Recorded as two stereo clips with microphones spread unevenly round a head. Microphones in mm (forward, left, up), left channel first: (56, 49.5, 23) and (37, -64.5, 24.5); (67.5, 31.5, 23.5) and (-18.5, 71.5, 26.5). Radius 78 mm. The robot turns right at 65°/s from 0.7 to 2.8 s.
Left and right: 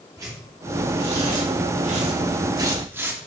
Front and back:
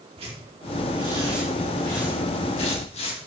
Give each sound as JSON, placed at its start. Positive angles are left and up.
{"t": 0.2, "sound": "tearing paper", "azimuth_deg": -165, "distance_m": 3.0}